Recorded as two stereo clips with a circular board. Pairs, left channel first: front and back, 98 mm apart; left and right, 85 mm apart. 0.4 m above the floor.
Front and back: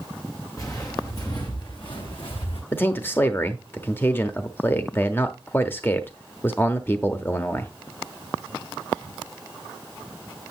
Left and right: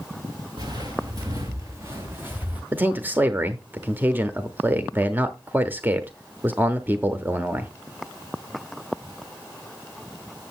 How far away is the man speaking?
About 0.9 m.